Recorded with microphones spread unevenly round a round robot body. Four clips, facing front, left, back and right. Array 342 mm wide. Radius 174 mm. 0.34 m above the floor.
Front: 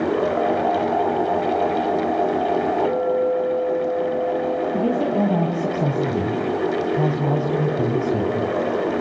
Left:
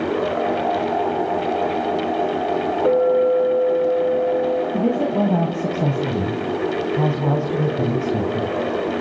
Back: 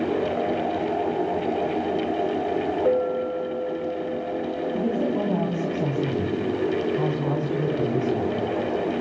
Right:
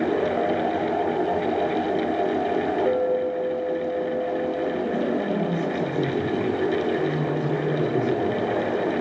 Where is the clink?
75° left, 8.5 m.